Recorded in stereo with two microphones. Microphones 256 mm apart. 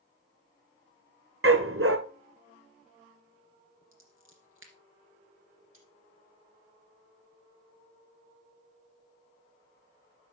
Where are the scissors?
50° right (ahead or behind), 2.5 m.